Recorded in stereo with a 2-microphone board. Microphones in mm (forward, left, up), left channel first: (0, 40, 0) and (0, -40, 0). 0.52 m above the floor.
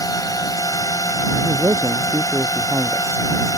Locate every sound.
0.0 s a drone: 50° left (ahead or behind)
1.4 s a man speaking: 30° right (ahead or behind)